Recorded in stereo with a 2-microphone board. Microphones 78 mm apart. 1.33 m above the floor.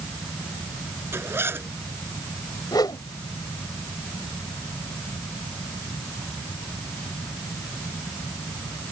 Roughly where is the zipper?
Right.